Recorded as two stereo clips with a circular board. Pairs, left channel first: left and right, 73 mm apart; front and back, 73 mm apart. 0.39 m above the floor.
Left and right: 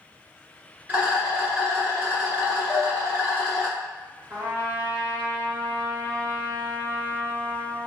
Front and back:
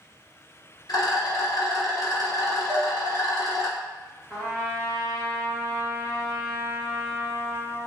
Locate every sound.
0.9 s a rattle: 20° right, 1.1 m
2.7 s dishes clattering: 30° left, 0.7 m
4.3 s a trumpet: 95° right, 1.3 m